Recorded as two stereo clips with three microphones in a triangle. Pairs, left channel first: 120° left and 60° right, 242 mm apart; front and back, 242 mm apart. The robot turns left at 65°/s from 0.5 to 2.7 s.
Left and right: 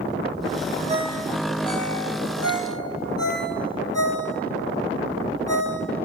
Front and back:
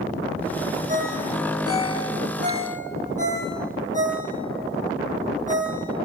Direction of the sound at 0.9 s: 120° right.